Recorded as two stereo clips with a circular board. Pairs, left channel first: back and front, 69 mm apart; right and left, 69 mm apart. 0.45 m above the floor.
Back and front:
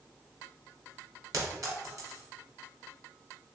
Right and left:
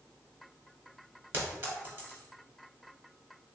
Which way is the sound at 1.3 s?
35° left.